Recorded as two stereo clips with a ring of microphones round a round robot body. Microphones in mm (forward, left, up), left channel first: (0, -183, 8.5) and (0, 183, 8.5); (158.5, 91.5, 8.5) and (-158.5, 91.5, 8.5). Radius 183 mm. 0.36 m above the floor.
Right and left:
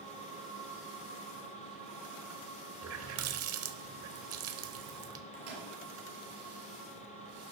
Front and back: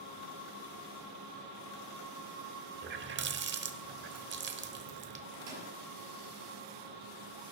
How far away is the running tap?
About 1.0 m.